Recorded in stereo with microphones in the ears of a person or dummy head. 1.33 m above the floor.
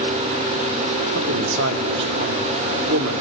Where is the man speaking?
70° right (ahead or behind), 2.5 m.